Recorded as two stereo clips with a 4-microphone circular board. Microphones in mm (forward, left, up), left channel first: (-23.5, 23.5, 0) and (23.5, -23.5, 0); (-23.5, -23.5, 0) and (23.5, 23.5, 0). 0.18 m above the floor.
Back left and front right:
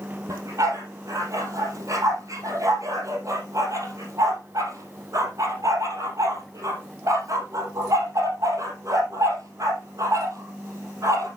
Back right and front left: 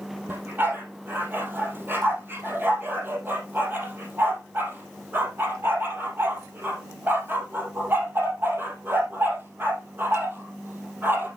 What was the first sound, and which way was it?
A dog barking, 10° right.